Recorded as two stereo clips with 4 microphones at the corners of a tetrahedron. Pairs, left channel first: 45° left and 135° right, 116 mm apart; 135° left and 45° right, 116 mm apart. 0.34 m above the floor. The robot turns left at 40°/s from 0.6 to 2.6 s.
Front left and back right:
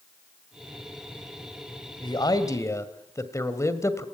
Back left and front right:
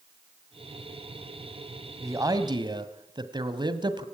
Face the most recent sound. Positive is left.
turn(degrees=-10)